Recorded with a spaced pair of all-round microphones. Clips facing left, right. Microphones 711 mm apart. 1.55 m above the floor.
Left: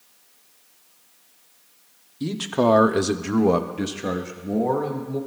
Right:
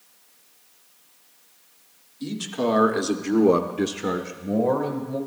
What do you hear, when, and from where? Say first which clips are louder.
2.2 s a man speaking: left 4 dB; 85° left, 1.1 m; by 5.2 s 15° right (ahead or behind), 2 m